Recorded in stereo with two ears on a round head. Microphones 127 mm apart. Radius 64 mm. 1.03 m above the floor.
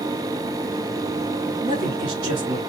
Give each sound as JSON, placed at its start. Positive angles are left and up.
{"t": 1.6, "sound": "a man speaking", "side_deg": -50, "distance_m": 3.0}